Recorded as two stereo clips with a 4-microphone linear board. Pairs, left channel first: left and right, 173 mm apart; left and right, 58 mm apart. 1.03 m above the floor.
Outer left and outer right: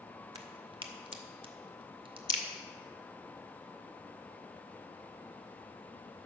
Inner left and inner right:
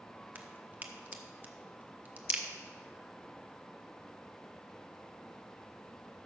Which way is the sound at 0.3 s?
30° right (ahead or behind).